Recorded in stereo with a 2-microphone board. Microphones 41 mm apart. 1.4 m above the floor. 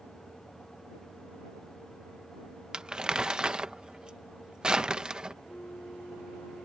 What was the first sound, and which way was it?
Crumpling, 20° right (ahead or behind).